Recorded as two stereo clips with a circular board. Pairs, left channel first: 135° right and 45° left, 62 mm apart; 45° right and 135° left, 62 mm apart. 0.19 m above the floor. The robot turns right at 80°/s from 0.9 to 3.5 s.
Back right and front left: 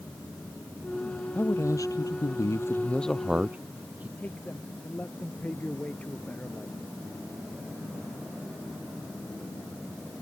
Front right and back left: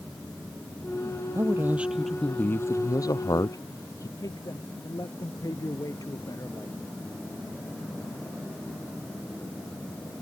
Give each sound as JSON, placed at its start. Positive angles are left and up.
{"t": 1.4, "sound": "a man speaking", "azimuth_deg": 170}
{"t": 4.2, "sound": "a man speaking", "azimuth_deg": -65}